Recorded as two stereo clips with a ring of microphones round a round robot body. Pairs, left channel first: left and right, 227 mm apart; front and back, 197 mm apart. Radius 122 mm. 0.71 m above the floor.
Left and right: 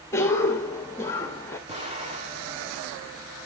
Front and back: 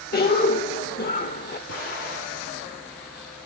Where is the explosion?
25° right, 6 m.